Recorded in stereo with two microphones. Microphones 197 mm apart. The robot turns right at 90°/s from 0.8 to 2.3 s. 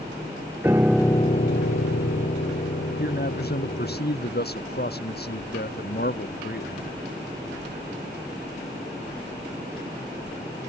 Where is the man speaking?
55° left (ahead or behind).